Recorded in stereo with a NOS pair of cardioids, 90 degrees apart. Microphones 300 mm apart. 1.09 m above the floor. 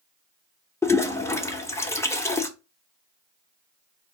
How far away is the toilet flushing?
About 0.6 m.